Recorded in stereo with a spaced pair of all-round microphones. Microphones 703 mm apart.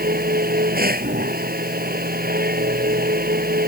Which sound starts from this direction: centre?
A machine running, at 0.0 s.